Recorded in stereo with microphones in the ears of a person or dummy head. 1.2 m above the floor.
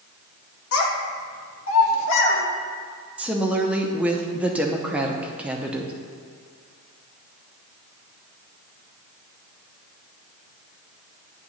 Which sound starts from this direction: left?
A child speaking, at 0.7 s.